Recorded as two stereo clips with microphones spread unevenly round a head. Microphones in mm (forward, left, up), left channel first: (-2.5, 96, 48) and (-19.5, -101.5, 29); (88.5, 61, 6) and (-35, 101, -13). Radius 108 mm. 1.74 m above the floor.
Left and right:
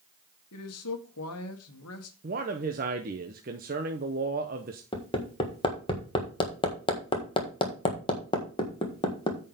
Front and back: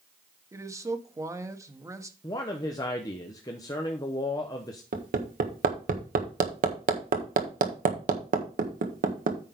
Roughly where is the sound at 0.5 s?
Left.